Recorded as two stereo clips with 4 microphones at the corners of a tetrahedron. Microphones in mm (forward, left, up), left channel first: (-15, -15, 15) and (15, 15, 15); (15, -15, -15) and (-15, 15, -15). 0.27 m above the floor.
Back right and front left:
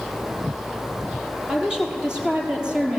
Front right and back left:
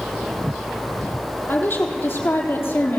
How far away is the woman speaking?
About 7 m.